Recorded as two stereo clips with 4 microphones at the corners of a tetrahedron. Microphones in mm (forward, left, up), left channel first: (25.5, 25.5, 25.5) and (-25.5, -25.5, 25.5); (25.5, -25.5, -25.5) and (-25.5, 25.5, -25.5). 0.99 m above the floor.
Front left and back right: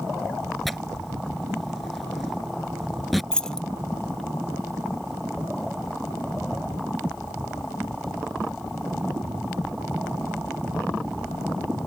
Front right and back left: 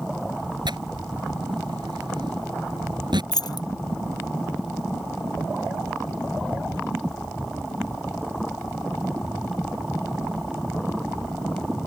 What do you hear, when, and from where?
0.7 s tearing paper: 135° left
3.3 s keys jangling: 35° right